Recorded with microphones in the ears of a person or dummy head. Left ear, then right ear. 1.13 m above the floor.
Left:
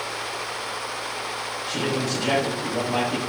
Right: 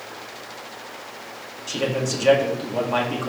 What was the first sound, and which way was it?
A man speaking, 50° right (ahead or behind).